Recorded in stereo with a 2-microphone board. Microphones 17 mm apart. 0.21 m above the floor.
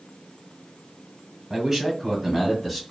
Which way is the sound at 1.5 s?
15° right (ahead or behind).